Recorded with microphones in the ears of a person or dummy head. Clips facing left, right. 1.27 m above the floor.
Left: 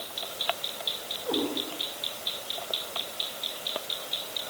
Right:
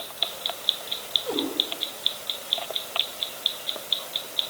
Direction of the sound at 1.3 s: Centre (ahead or behind).